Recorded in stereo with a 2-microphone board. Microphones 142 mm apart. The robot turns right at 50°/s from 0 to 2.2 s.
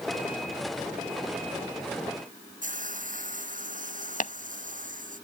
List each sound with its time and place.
2.6 s a hiss: 70° right (ahead or behind)
4.2 s tapping: 65° left (ahead or behind)